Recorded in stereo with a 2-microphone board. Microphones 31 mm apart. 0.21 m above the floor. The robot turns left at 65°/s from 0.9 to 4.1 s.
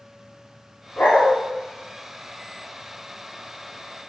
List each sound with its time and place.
1.0 s a dog barking: 60° left (ahead or behind), 5.5 m; by 1.3 s 85° left, 5.5 m